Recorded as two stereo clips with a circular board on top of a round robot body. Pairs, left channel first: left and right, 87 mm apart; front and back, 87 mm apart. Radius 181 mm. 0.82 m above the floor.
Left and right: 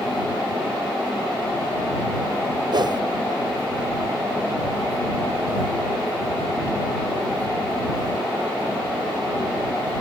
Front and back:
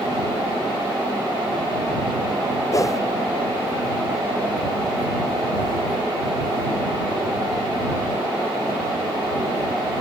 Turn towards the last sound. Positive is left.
turn(degrees=-55)